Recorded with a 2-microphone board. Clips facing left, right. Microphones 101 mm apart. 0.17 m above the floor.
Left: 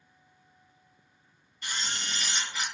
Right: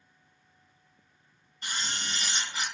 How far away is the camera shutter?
About 1.2 m.